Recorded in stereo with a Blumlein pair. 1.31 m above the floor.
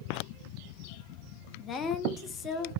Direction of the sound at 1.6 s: 25° left.